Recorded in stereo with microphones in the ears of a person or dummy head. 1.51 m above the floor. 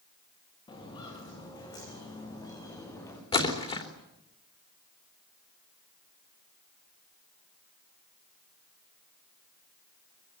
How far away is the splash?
About 3 m.